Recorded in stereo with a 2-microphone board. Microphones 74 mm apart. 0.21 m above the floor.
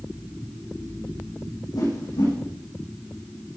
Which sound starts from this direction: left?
A whoosh, at 1.7 s.